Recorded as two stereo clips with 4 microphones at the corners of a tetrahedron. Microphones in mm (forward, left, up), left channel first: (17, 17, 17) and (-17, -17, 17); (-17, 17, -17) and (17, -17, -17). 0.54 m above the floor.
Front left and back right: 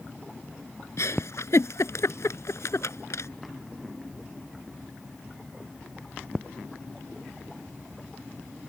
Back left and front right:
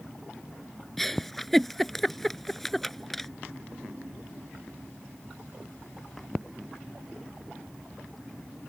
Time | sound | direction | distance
1.0 | a giggle | 50° left | ?